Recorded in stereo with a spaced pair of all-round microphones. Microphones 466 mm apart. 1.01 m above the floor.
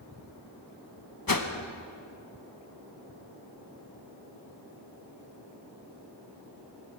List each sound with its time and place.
1.3 s a whoosh: 45° left (ahead or behind), 1.1 m